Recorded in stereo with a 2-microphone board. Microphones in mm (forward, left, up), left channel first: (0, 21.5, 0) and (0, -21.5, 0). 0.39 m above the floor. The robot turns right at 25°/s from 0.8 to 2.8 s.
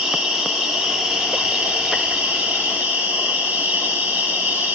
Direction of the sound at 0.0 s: 170° right.